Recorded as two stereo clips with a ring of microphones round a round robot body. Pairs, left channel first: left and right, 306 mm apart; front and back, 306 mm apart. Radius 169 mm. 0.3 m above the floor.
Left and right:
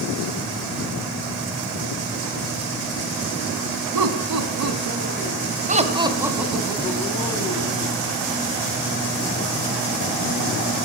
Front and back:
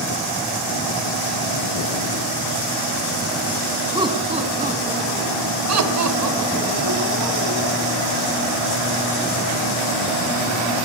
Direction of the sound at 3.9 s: 105° right.